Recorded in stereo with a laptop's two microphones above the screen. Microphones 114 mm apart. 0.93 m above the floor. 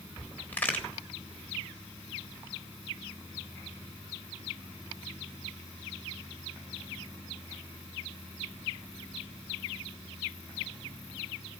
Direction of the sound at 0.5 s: 15° left (ahead or behind).